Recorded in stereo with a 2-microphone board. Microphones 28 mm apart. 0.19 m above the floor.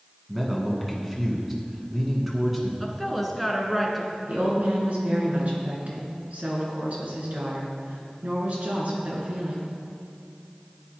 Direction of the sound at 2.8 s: 5° right (ahead or behind).